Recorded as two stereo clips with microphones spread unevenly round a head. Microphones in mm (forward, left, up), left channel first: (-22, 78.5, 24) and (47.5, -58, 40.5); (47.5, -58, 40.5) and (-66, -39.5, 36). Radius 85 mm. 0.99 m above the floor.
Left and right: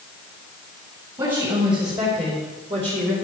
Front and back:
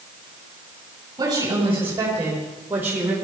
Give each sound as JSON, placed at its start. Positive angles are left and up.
{"t": 1.2, "sound": "a woman speaking", "azimuth_deg": -130, "distance_m": 5.0}